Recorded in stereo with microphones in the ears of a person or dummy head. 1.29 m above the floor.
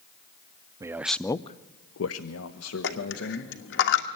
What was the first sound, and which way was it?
A man speaking, 20° right (ahead or behind).